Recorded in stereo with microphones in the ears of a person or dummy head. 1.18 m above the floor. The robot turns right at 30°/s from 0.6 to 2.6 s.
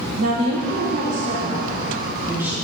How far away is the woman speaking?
About 0.9 m.